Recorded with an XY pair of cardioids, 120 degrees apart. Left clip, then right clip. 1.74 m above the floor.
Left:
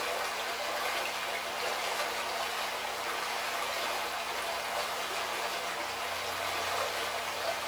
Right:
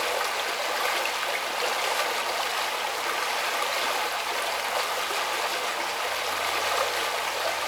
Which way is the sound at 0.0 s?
50° right.